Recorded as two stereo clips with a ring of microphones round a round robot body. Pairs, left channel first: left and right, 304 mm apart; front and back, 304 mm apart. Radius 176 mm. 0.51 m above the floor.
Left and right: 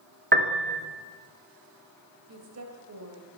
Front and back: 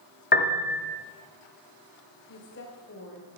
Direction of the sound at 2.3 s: 55° right.